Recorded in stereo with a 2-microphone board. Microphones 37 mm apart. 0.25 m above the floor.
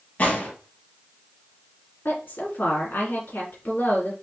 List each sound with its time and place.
0.2 s a gunshot: 45° left (ahead or behind), 2 m
2.0 s a woman speaking: 65° left (ahead or behind), 2.5 m